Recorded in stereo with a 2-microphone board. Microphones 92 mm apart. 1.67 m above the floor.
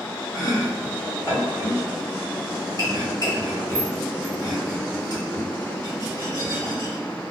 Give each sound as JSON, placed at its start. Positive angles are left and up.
{"t": 0.3, "sound": "chopping", "side_deg": 45, "distance_m": 1.7}